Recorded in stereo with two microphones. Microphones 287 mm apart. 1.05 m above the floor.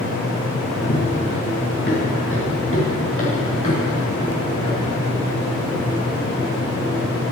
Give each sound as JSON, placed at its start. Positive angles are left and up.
{"t": 0.8, "sound": "running footsteps", "side_deg": 35, "distance_m": 6.0}